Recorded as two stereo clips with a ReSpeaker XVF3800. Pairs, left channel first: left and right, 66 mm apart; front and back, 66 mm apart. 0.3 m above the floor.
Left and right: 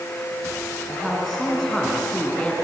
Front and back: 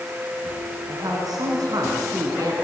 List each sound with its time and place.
0.9 s a man speaking: straight behind, 3.5 m; by 2.5 s 165° left, 3.5 m